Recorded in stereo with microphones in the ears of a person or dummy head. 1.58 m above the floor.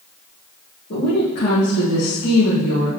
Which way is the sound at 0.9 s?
55° left (ahead or behind).